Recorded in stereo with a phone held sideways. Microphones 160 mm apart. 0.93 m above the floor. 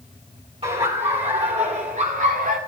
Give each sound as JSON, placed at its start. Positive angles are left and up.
{"t": 0.6, "sound": "laughter", "side_deg": -35, "distance_m": 4.0}